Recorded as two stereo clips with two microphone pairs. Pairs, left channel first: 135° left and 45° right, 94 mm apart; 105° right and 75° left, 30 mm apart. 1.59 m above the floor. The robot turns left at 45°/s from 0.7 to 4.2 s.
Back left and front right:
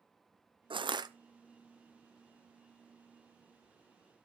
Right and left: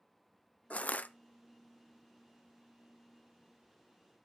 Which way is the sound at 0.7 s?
70° right.